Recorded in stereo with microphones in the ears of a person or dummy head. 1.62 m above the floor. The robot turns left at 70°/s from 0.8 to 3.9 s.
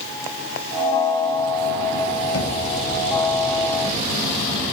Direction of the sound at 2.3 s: 75° left (ahead or behind).